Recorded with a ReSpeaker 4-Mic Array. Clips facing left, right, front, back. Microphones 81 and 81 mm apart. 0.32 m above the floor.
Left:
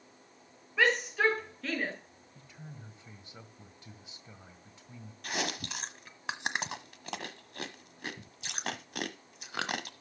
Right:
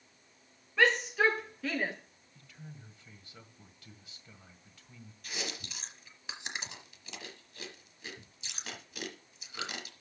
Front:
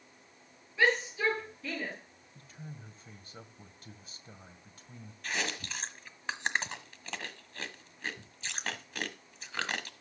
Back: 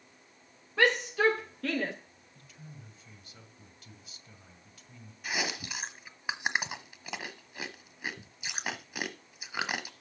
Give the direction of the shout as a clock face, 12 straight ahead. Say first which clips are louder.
Right 1 dB, back 3 dB; 6 o'clock.